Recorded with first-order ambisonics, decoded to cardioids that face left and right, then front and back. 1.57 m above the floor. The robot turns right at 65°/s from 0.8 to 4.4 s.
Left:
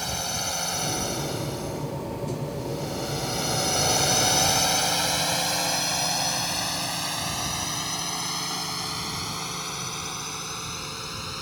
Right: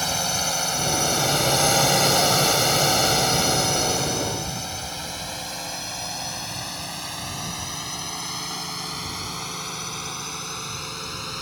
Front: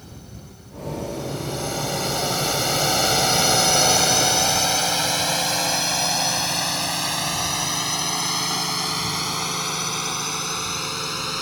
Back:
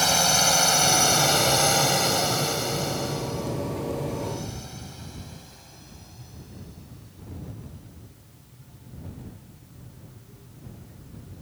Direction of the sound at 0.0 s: 160° right.